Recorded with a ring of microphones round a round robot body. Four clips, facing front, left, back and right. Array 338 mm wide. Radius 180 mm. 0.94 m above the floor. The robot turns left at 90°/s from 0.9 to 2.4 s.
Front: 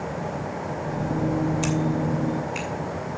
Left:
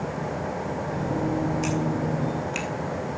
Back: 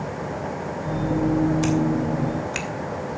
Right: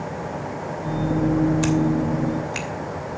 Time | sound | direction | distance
1.6 | scissors | 100° right | 2.5 m